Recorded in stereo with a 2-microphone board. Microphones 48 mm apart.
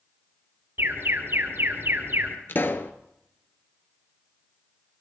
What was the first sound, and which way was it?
An alarm, 55° right (ahead or behind).